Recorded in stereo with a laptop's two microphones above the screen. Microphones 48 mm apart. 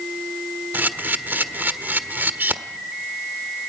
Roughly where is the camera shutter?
Right.